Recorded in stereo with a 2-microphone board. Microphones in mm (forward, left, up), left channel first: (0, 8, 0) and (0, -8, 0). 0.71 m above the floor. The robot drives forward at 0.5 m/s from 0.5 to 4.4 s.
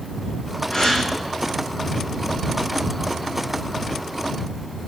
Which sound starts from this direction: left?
A gasp, at 0.7 s.